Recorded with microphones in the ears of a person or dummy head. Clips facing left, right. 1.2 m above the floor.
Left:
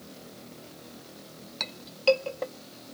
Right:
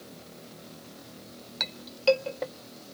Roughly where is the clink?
Centre.